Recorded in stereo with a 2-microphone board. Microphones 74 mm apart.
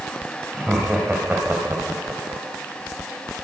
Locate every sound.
0.5 s laughter: 15° right (ahead or behind), 4.5 m; by 2.4 s 30° right (ahead or behind), 4.5 m